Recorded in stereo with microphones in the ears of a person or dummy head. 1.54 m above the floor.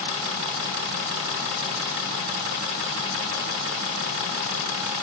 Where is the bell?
No bell in this recording.